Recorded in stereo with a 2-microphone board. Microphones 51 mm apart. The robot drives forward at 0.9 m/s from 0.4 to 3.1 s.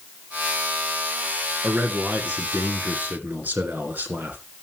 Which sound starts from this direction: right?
A man speaking, at 1.6 s.